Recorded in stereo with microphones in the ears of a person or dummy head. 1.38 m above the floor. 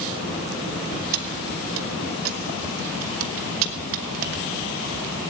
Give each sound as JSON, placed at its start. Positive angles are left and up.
{"t": 1.1, "sound": "keys jangling", "side_deg": -75, "distance_m": 1.5}